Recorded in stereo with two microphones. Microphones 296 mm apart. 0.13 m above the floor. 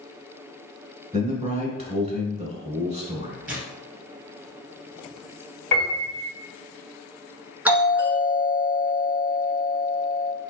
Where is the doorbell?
5° right (ahead or behind), 1.6 m.